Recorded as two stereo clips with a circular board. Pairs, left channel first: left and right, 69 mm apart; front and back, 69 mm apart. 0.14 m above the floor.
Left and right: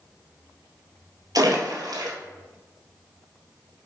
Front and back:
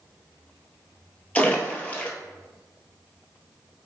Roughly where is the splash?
Right.